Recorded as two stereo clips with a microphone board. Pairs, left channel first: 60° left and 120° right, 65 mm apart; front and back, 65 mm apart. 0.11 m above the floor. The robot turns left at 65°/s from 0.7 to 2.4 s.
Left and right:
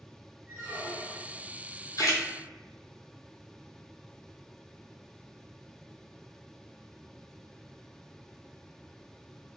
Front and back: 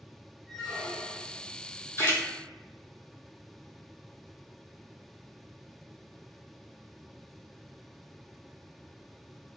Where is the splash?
50° left, 0.6 m; by 2.2 s 30° left, 0.6 m.